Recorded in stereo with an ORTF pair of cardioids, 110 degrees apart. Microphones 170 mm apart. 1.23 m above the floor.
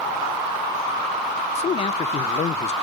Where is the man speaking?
40° left, 0.8 m.